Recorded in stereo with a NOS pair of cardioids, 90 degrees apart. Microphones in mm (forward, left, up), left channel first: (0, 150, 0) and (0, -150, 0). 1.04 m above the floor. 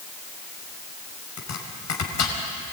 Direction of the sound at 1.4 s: 55° left.